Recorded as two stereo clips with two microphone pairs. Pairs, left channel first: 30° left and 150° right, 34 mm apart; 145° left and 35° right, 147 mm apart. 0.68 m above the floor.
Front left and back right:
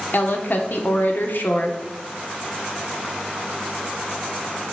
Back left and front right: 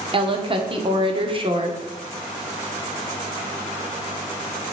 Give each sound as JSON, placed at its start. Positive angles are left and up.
{"t": 0.1, "sound": "a woman speaking", "azimuth_deg": 15, "distance_m": 1.2}